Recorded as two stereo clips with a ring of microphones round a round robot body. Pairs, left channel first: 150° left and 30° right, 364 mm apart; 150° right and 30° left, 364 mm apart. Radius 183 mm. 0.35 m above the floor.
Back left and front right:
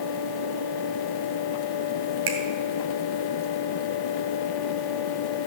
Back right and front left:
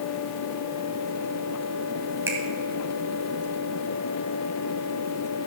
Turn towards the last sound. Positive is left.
turn(degrees=-55)